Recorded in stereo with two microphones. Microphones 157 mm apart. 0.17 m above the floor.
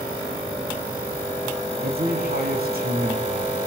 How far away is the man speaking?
About 3.5 m.